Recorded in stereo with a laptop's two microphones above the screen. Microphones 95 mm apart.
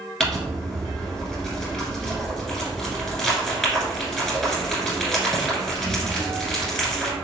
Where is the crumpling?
5° left (ahead or behind), 1.6 m.